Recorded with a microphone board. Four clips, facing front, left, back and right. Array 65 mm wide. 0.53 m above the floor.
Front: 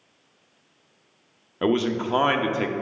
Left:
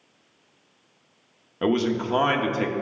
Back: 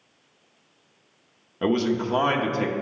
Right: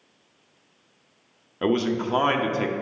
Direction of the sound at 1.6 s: 5° left.